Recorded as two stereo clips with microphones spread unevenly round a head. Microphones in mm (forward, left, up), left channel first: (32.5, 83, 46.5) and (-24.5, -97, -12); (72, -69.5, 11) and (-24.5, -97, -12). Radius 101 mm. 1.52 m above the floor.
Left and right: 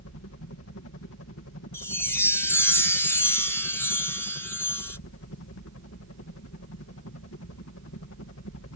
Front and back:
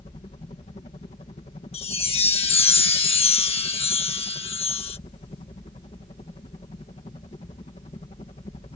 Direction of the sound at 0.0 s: 60° left.